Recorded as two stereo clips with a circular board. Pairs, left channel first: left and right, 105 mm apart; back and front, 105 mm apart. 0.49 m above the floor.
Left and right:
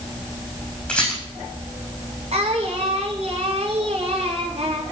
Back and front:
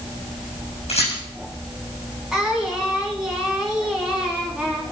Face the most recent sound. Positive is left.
turn(degrees=-85)